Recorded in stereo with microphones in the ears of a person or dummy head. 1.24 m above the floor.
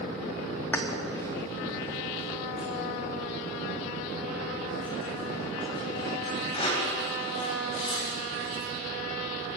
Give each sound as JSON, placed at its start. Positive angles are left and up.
{"t": 0.7, "sound": "keys jangling", "side_deg": 10, "distance_m": 1.2}